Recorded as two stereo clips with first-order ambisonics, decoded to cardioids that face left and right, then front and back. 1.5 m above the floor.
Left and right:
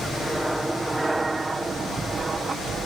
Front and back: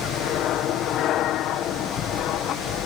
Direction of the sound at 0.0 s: Straight ahead.